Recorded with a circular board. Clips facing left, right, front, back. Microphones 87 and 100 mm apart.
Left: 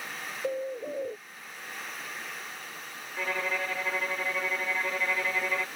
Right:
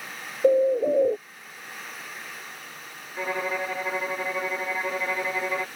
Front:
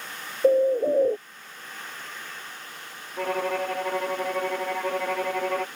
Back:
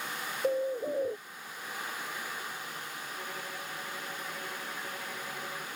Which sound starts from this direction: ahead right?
A bird, at 0.4 s.